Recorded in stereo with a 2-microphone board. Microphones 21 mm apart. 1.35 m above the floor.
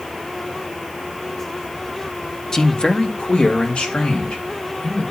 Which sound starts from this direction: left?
A man speaking, at 2.5 s.